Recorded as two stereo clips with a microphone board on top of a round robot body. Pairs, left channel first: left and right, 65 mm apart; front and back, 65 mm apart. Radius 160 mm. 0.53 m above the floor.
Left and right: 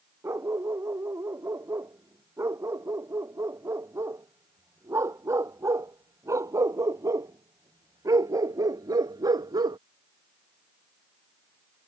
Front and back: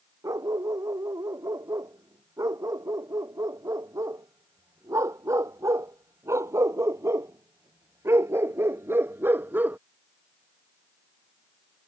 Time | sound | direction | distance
0.2 | a dog barking | 145° right | ?